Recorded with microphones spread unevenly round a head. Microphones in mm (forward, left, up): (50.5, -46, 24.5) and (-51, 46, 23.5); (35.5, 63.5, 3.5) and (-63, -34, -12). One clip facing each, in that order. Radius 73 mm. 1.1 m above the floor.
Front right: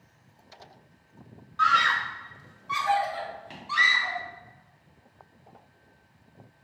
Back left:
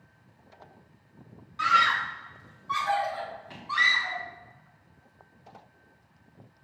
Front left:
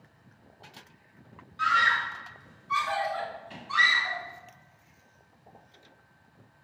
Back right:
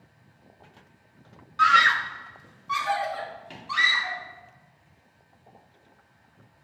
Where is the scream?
150° right, 0.6 m; by 4.2 s 105° right, 3 m.